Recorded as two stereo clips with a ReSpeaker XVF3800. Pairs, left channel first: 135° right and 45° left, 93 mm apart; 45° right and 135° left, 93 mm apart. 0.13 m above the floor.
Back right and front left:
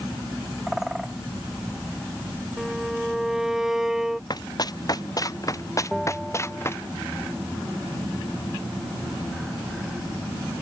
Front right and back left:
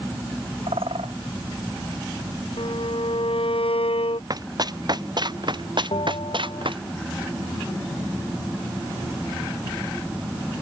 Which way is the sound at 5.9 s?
45° right.